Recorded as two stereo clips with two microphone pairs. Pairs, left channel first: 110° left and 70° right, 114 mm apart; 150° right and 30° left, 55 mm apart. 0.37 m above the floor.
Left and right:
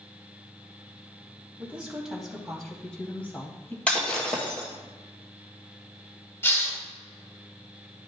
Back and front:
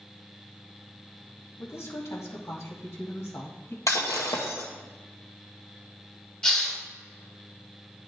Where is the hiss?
145° left, 1.5 m.